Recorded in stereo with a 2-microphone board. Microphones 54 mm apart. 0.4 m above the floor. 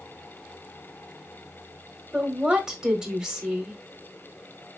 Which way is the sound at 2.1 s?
15° right (ahead or behind).